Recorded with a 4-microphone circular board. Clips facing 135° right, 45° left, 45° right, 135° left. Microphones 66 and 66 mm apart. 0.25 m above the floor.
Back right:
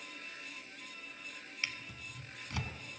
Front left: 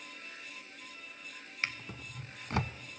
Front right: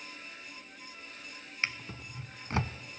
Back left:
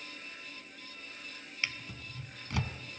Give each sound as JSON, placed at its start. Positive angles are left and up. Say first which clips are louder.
{"t": 1.6, "sound": "a drawer", "louder": "front left 4 dB, front right 3 dB", "azimuth_deg": 5, "distance_m": 0.6}